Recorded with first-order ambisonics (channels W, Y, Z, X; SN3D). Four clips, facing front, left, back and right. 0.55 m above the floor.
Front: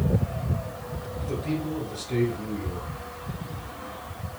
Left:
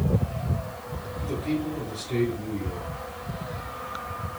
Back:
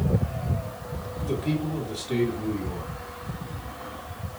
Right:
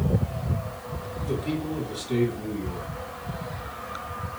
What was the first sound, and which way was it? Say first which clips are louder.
A man speaking: left 1 dB, back 2 dB; 165° right.